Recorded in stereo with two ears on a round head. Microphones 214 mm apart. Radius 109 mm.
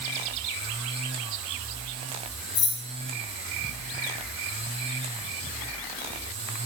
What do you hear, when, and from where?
2.5 s keys jangling: 50° left (ahead or behind), 5 m